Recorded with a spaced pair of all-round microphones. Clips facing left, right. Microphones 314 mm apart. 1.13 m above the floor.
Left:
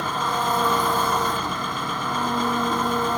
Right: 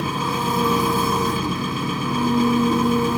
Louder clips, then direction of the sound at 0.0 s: Right 5 dB; 35° right (ahead or behind).